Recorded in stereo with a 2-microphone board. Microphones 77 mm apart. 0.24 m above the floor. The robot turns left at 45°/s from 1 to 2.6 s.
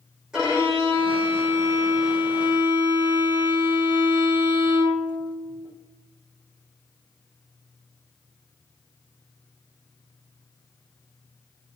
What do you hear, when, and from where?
0.3 s a violin: 10° right, 5 m; by 5.7 s 80° right, 5 m